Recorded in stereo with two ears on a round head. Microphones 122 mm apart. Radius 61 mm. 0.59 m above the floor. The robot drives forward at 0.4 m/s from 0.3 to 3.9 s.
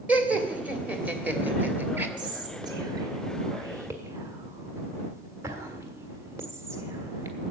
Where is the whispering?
35° right (ahead or behind), 0.9 m; by 7.3 s 20° right (ahead or behind), 1.4 m.